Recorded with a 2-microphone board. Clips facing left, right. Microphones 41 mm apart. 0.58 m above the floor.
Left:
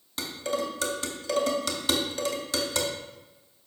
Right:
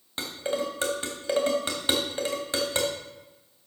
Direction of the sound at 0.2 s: 25° right (ahead or behind).